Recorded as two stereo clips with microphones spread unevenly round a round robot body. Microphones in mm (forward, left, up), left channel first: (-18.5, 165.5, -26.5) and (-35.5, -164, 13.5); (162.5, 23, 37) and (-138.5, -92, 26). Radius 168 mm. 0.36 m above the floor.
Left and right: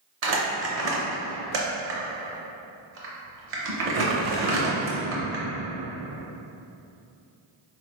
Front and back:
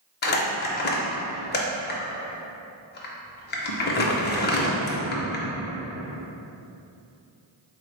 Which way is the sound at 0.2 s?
40° right.